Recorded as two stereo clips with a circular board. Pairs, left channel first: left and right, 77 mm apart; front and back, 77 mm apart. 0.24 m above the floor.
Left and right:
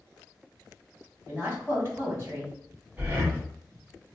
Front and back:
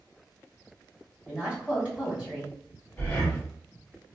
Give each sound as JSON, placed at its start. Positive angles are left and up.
{"t": 1.3, "sound": "a woman speaking", "azimuth_deg": -120, "distance_m": 1.8}
{"t": 3.0, "sound": "breathing", "azimuth_deg": -50, "distance_m": 1.3}